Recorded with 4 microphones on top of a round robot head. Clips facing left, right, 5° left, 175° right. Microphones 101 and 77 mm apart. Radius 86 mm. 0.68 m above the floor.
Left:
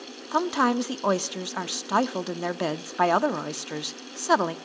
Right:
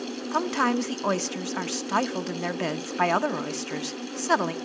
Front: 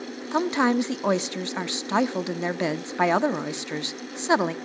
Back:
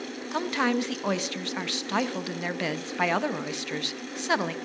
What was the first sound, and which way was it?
A woman speaking, 35° left.